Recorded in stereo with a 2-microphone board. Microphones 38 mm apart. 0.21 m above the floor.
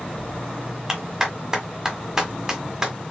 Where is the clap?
20° right (ahead or behind), 1.1 m.